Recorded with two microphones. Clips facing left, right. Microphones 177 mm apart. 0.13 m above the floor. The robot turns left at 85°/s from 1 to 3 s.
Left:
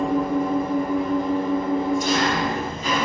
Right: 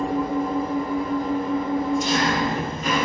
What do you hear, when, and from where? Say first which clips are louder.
0.0 s an engine running: left 2 dB; 90° left, 1.6 m; by 3.0 s 80° right, 1.6 m